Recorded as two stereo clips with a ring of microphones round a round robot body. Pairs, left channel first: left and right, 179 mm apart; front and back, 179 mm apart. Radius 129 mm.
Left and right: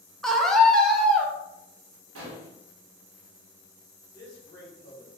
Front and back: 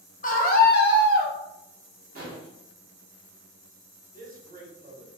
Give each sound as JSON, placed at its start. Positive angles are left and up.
{"t": 0.2, "sound": "a scream", "azimuth_deg": 0, "distance_m": 1.0}
{"t": 2.1, "sound": "an explosion", "azimuth_deg": -120, "distance_m": 0.7}
{"t": 4.1, "sound": "a man speaking", "azimuth_deg": 140, "distance_m": 1.5}